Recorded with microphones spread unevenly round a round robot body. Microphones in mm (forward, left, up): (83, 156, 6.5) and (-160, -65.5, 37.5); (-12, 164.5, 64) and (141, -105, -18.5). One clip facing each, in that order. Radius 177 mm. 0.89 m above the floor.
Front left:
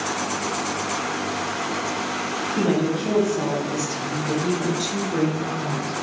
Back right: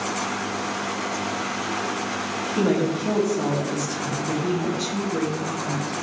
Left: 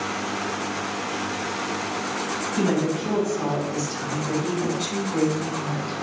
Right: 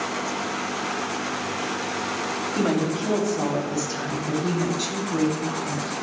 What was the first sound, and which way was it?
A woman speaking, 60° right.